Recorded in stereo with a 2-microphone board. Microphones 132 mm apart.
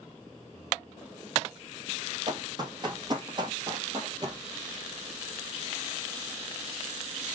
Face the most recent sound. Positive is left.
turn(degrees=-30)  # may be behind; listen again after turning